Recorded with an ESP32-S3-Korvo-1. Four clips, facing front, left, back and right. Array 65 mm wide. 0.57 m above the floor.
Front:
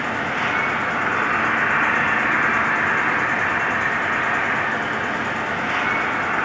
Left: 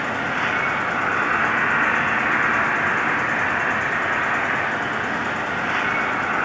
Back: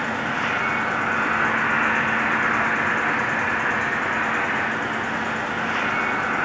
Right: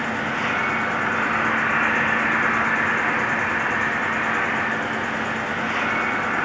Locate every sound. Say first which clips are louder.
0.0 s an insect: left 1 dB, front 1 dB; 35° left, 0.9 m